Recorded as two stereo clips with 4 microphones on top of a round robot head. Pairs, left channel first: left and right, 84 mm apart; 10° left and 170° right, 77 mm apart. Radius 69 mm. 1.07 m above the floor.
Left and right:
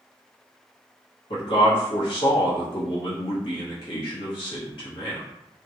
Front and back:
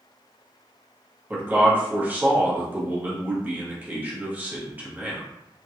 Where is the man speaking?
125° left, 1.0 m.